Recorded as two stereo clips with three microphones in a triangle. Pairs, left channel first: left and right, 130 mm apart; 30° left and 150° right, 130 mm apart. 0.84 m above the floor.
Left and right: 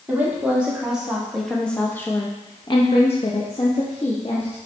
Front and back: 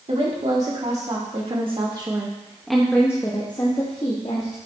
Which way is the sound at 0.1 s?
165° right.